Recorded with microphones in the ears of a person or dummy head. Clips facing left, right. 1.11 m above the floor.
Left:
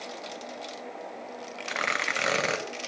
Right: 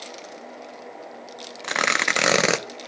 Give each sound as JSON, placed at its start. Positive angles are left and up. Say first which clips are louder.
{"t": 1.6, "sound": "tearing paper", "louder": "right 7 dB", "side_deg": -75, "distance_m": 0.5}